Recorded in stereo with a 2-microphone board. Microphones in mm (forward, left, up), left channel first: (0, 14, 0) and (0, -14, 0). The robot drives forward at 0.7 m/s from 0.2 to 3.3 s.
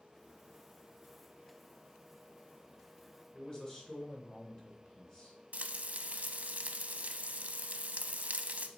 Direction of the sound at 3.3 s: 30° left (ahead or behind).